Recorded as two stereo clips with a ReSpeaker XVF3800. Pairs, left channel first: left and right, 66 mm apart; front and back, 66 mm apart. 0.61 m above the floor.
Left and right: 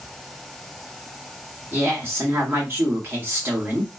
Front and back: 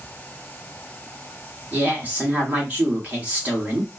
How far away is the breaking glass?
No breaking glass in this recording.